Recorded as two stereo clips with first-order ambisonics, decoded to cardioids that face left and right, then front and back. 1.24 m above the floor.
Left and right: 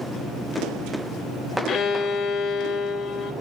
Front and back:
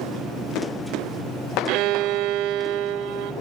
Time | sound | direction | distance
1.7 | a violin | 150° left | 1.3 m